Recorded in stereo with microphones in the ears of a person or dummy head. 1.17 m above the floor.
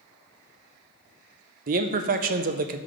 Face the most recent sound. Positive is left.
turn(degrees=-45)  # may be behind; listen again after turning